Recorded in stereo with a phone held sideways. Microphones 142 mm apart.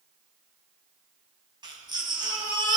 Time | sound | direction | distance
1.6 | a baby crying | 30° right (ahead or behind) | 3 m